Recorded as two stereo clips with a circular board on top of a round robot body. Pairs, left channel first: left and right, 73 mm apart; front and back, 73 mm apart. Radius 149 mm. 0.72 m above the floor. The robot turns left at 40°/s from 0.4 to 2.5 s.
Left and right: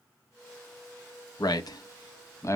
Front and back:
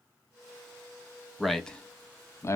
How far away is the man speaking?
About 0.7 m.